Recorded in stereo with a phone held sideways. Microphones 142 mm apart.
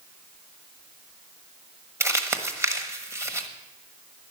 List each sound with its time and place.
2.0 s crumpling: 20° right (ahead or behind), 1.3 m